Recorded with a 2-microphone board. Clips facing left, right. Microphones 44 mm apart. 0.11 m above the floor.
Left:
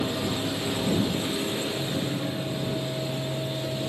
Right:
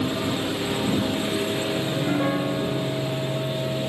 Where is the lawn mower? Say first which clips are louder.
Right 3 dB; 15° right (ahead or behind); by 3.9 s 20° right (ahead or behind).